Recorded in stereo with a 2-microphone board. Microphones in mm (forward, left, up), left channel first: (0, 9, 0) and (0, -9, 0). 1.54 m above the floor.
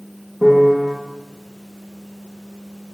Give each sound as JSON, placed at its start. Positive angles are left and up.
{"t": 0.4, "sound": "a piano", "side_deg": -35, "distance_m": 1.7}